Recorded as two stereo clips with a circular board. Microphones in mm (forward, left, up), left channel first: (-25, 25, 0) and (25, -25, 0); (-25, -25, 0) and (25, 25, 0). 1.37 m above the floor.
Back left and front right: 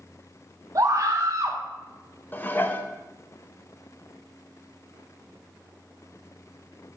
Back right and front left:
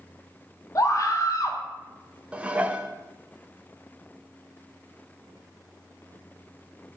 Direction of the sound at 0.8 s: 90° right.